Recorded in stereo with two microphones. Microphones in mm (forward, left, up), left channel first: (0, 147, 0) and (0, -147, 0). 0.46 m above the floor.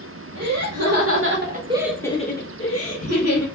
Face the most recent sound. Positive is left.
turn(degrees=55)  # may be behind; listen again after turning